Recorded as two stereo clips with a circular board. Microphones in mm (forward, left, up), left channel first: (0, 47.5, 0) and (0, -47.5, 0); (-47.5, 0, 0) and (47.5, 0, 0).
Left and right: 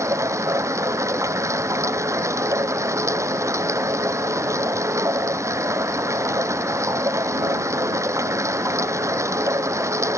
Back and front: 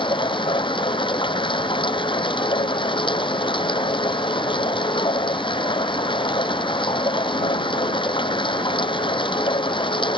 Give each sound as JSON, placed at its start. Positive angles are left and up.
{"t": 0.0, "sound": "running water", "azimuth_deg": -150}